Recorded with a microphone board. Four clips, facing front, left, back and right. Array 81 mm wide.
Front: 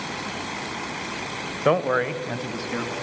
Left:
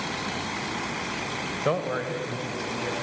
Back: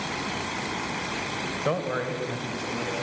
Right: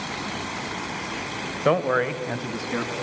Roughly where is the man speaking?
Ahead right.